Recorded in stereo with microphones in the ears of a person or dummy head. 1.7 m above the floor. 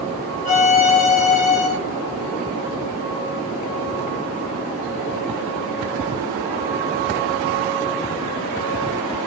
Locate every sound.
0.5 s a violin: 35° left (ahead or behind), 2 m